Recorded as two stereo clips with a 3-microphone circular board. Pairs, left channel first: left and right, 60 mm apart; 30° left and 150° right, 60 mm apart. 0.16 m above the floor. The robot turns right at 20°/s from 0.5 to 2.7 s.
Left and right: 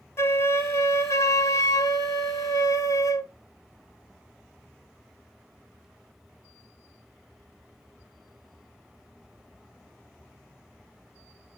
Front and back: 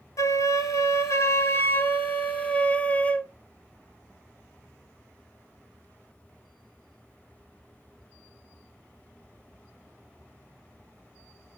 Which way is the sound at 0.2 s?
50° left.